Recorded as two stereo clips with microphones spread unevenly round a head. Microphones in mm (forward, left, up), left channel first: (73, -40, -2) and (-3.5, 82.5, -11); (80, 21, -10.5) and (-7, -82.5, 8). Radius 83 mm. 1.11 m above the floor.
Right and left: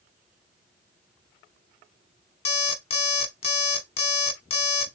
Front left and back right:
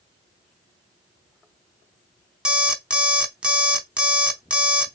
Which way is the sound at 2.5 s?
60° right.